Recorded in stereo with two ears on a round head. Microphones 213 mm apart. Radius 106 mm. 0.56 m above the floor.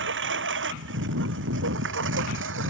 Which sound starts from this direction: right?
A lawn mower, at 0.0 s.